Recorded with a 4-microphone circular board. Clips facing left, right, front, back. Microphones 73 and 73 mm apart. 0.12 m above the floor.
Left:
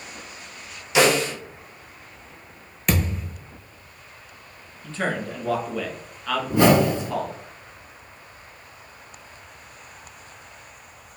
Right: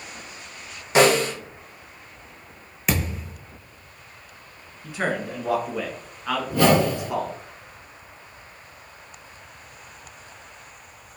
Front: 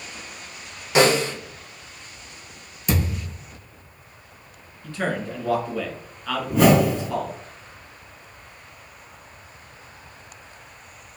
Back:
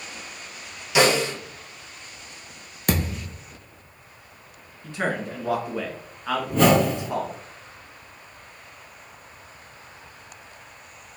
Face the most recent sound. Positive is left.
turn(degrees=75)